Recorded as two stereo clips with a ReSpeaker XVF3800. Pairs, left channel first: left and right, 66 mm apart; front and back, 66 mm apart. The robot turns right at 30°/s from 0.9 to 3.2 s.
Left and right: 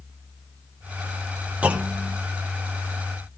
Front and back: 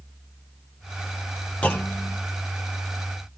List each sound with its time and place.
1.6 s a clunk: 45° right, 1.1 m; by 2.2 s 30° right, 1.1 m